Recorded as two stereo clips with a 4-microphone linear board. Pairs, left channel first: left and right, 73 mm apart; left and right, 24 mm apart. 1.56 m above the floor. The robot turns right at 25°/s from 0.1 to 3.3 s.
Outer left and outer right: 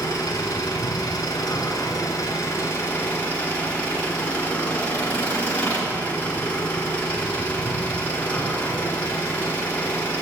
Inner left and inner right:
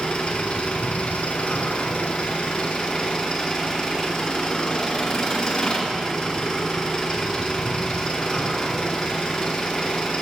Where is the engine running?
75° left, 4 m; by 10.2 s 155° left, 4 m.